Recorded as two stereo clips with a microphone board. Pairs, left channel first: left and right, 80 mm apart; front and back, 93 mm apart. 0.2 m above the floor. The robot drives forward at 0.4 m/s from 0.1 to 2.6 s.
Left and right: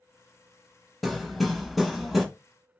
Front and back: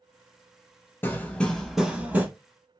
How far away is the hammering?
About 0.7 m.